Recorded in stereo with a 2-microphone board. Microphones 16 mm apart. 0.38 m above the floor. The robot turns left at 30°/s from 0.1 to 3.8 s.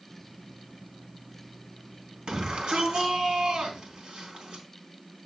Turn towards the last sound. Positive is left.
turn(degrees=-125)